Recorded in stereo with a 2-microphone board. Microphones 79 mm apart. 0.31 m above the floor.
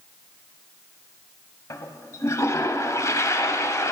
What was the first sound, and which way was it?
A toilet flushing, 40° left (ahead or behind).